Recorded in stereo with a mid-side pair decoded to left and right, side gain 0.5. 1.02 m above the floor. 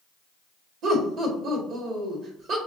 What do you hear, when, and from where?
0.8 s laughter: 60° right, 1.6 m